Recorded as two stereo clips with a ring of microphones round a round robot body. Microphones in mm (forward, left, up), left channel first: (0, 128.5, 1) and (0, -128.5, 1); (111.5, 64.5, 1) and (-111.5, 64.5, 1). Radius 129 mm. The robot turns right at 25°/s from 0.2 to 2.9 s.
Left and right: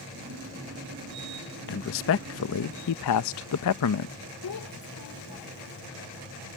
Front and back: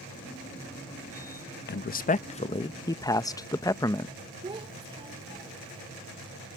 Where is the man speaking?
45° left; by 4.1 s 75° left.